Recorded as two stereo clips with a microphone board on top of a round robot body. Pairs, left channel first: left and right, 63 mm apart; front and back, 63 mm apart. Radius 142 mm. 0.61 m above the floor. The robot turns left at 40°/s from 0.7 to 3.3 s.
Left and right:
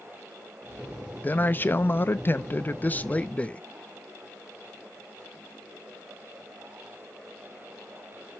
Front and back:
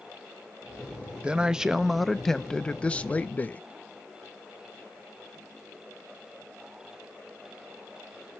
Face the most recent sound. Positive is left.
turn(degrees=40)